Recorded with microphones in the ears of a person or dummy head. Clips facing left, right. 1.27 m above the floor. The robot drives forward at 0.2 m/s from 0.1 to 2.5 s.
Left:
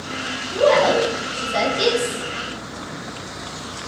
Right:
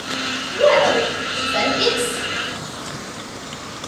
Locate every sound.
0.5 s a woman speaking: 30° left (ahead or behind), 1.4 m; by 2.2 s 25° left (ahead or behind), 1.7 m